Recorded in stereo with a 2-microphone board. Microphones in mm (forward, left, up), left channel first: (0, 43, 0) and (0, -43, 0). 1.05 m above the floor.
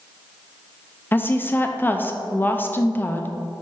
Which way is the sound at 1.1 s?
25° left (ahead or behind).